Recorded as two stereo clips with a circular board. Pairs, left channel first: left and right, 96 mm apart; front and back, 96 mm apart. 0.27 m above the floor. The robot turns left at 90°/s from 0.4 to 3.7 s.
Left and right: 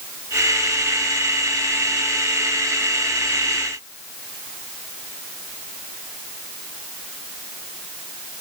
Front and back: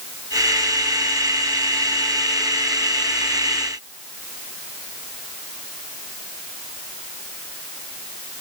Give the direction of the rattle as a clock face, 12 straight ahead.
I don't hear a rattle.